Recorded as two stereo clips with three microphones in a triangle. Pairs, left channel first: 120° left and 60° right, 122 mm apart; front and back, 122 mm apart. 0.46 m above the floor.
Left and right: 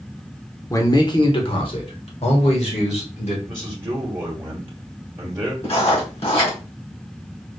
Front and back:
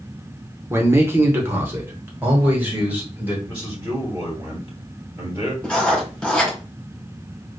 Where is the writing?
80° left, 2 m.